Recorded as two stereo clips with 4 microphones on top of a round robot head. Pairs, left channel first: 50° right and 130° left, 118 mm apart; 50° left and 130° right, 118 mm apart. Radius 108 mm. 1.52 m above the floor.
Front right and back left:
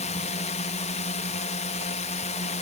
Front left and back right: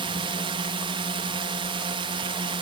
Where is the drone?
80° right.